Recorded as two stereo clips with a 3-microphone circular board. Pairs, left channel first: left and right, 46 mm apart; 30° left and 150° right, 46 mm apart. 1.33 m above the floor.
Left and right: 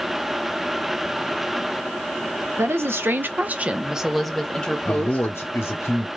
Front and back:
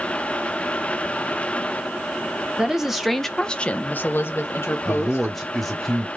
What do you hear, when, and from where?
2.6 s a woman speaking: 75° right, 0.8 m; by 5.3 s 35° left, 1.0 m
4.8 s a man speaking: 120° left, 0.7 m